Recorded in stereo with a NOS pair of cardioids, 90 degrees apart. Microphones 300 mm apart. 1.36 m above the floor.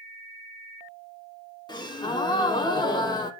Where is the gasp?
15° left, 1.2 m.